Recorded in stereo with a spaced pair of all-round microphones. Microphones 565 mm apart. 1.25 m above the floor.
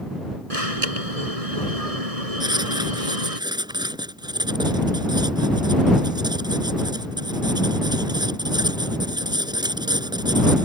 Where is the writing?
5° right (ahead or behind).